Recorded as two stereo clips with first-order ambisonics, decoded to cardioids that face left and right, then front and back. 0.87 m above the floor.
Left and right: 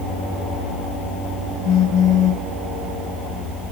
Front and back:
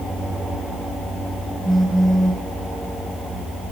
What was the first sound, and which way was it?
A phone buzzing, 85° left.